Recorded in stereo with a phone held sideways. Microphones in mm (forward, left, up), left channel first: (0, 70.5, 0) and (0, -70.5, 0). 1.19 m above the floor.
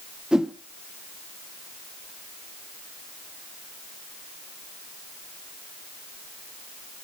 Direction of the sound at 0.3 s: 5° right (ahead or behind).